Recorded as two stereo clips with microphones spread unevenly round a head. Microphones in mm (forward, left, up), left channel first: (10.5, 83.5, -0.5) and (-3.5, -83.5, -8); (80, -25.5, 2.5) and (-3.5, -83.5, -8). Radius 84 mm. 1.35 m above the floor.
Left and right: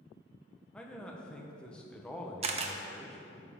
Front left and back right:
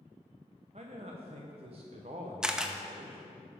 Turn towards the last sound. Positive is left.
turn(degrees=-55)